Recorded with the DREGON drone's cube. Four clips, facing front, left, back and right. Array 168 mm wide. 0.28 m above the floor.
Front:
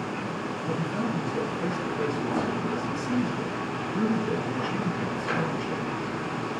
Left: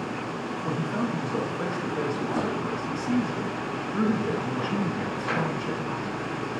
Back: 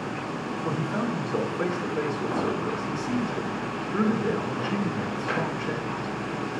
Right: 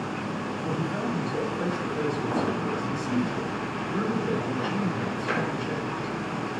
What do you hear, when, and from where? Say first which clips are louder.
0.7 s a man speaking: left 1 dB, back 1 dB; 145° left, 2 m